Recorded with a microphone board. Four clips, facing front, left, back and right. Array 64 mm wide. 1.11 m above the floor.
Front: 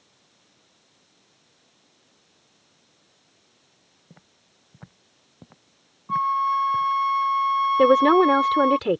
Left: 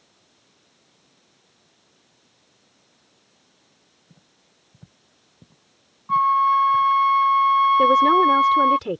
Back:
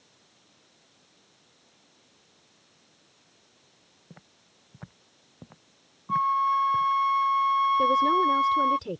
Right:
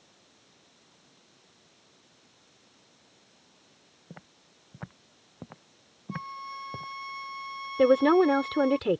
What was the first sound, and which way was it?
Footsteps, 100° right.